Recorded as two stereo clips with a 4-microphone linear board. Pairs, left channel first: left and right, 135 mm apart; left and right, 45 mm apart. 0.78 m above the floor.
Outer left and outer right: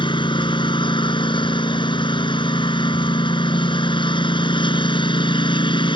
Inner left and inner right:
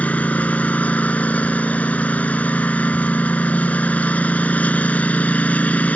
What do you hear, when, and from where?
0.0 s a lawn mower: 35° left (ahead or behind)